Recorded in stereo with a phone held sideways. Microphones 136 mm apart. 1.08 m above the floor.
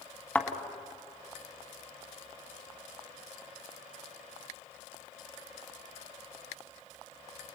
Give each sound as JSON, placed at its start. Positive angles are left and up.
{"t": 0.3, "sound": "a thud", "side_deg": 10, "distance_m": 1.8}